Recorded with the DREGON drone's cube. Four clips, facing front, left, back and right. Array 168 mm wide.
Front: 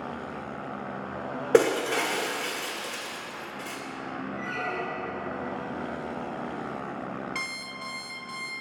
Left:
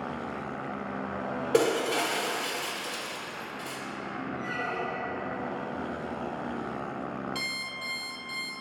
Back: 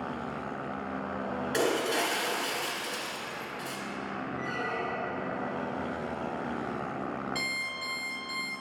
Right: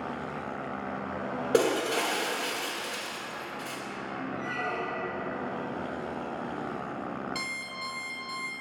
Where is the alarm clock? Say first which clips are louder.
Even, back 1 dB; 15° right, 1.5 m.